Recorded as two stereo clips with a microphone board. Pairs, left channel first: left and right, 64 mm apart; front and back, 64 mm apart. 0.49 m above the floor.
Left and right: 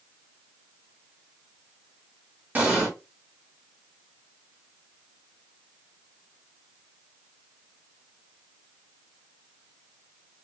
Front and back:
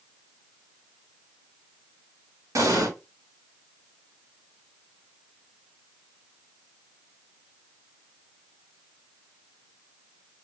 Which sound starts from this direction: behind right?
An explosion, at 2.5 s.